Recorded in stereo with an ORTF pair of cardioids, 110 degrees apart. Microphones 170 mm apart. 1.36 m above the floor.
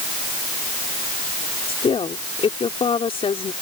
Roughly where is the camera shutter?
No camera shutter in this recording.